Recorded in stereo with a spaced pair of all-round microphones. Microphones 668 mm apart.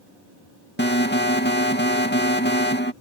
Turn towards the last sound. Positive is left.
turn(degrees=15)  # may be behind; listen again after turning